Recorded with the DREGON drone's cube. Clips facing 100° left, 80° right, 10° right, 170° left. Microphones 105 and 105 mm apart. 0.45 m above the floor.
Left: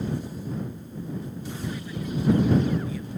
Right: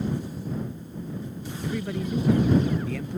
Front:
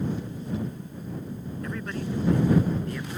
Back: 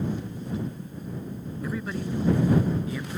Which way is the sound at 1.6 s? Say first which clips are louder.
Right 5 dB, back 2 dB; 110° right.